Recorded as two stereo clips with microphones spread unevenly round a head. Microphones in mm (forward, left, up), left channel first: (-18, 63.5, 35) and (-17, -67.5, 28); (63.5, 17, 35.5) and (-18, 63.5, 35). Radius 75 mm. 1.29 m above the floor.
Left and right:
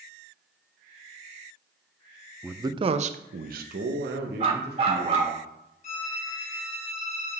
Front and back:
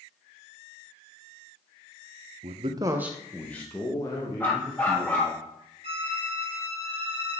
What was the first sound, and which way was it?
A man speaking, 170° right.